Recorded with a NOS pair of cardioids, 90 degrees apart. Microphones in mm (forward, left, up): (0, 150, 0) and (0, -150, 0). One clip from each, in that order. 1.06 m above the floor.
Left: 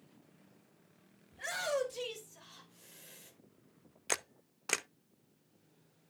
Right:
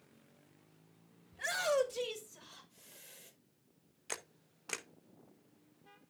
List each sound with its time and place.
1.3 s a shout: 20° right, 5 m; by 3.3 s straight ahead, 4.5 m
4.1 s a camera shutter: 30° left, 0.5 m